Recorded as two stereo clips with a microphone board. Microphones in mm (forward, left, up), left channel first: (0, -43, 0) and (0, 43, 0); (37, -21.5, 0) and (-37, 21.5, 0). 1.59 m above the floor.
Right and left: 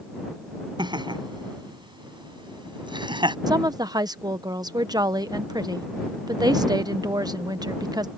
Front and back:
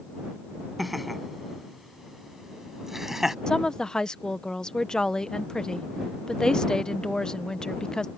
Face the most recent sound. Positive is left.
turn(degrees=50)